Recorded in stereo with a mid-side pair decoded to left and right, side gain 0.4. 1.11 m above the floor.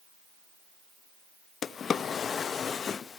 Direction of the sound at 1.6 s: 55° left.